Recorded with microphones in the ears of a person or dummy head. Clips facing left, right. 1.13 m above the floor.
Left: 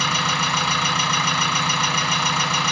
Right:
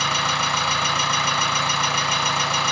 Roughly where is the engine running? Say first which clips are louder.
Left 1 dB; left.